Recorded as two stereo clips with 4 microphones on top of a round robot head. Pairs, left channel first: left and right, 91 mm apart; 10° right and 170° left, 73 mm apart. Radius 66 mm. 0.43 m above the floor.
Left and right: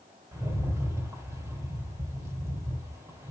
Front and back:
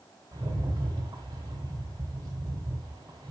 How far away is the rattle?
About 3 m.